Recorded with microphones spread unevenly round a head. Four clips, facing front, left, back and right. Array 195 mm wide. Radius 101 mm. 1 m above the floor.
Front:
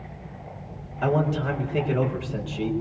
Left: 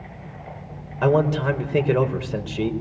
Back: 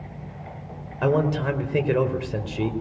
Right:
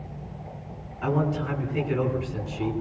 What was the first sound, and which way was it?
A man speaking, 120° left.